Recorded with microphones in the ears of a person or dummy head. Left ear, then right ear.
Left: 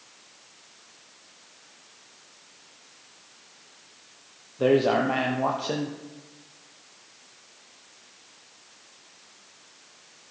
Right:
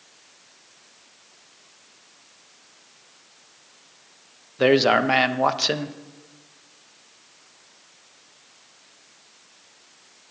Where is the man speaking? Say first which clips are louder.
Right 4 dB; 65° right (ahead or behind), 0.8 m.